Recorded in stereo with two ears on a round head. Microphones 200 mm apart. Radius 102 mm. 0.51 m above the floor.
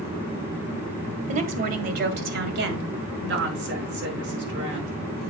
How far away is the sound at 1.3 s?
About 1.2 m.